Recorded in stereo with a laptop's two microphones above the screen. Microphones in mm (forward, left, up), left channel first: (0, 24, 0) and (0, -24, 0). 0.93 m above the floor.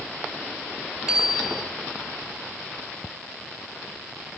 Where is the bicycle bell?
15° right (ahead or behind), 6 m.